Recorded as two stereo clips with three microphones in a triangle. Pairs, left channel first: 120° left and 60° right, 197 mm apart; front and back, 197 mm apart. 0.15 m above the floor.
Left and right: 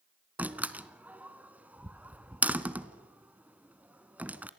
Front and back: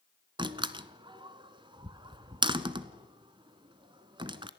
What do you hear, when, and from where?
0.4 s a door slam: 135° right, 0.8 m